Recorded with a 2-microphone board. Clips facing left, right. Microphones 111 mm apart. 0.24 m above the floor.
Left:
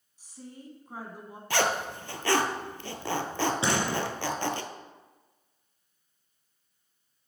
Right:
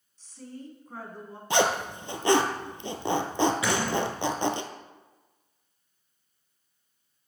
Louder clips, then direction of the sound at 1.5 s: Right 3 dB; 20° right (ahead or behind).